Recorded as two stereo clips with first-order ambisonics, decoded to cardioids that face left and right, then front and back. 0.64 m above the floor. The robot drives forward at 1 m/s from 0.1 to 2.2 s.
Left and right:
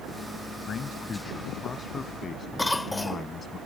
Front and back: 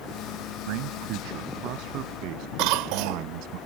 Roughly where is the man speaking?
Behind left.